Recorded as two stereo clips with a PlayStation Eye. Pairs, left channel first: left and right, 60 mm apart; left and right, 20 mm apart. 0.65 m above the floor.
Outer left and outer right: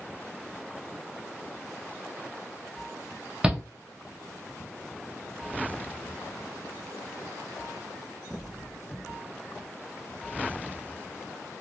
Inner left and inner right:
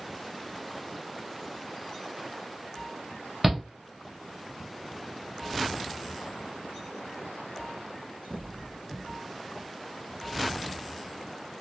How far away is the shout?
About 0.8 m.